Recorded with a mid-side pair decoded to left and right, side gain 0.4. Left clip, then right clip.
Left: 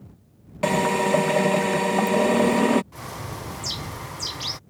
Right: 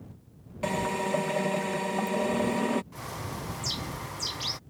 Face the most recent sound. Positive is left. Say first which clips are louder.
# left 3 dB
turn(degrees=20)